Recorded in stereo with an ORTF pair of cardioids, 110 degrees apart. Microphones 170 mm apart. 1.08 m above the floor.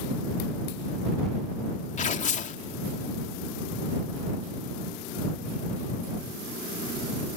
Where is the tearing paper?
40° left.